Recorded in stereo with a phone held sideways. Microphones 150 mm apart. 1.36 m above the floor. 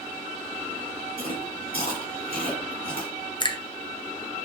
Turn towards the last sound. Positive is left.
turn(degrees=30)  # may be behind; listen again after turning